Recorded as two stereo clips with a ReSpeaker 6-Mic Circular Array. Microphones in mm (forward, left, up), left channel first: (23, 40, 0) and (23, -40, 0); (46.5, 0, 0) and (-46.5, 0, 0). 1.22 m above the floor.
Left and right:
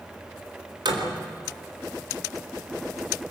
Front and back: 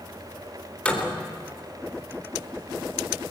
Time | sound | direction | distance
0.8 | a door slam | 75° right | 3.5 m